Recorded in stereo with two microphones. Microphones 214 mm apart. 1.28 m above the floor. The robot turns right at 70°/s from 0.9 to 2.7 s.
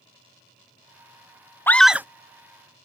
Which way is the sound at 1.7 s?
10° left (ahead or behind).